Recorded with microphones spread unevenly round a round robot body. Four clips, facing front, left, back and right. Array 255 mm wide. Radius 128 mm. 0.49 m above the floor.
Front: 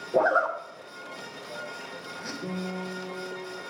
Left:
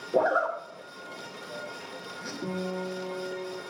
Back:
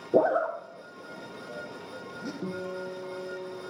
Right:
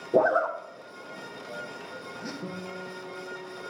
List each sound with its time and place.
0.1 s a zipper: 155° right, 0.9 m
2.4 s a guitar: 155° left, 3 m